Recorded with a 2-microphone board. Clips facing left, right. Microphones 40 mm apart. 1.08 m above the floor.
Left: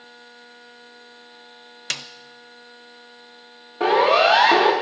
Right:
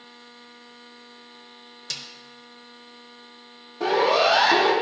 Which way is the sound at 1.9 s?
60° left (ahead or behind).